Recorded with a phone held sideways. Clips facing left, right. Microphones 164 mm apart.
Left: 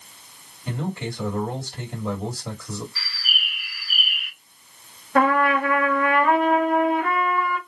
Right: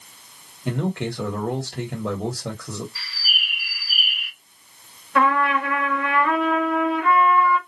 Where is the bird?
30° right (ahead or behind), 1.5 m.